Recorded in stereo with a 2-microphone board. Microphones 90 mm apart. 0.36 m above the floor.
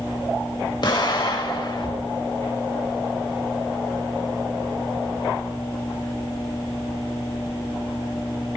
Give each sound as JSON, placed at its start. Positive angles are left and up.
{"t": 0.8, "sound": "an explosion", "side_deg": 50, "distance_m": 1.2}